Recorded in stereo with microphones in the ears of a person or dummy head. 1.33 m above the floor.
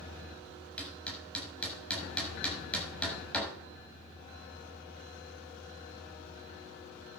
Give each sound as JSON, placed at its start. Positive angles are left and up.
{"t": 0.8, "sound": "hammering", "side_deg": 10, "distance_m": 6.0}